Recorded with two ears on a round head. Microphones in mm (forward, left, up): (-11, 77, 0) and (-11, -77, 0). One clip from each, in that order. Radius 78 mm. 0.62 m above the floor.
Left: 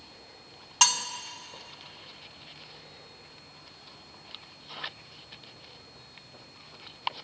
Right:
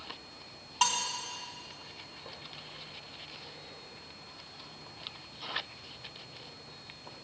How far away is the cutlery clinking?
About 0.8 m.